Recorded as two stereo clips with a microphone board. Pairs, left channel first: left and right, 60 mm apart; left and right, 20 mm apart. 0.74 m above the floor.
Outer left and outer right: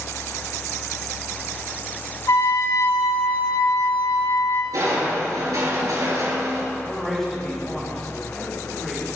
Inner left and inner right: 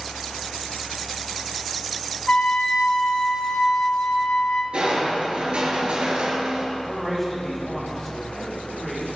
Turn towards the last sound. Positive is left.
turn(degrees=5)  # may be behind; listen again after turning